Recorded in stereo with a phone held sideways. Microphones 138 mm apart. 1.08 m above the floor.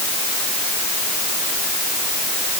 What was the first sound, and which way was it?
Only background noise.